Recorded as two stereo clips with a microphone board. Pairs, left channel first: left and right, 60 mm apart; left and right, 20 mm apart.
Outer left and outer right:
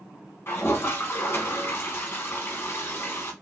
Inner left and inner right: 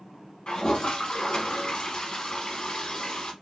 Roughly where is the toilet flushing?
Left.